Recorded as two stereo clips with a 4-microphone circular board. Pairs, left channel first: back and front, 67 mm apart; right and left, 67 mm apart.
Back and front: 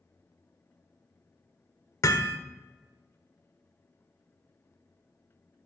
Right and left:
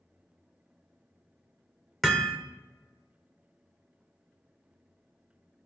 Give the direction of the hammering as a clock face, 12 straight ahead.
6 o'clock.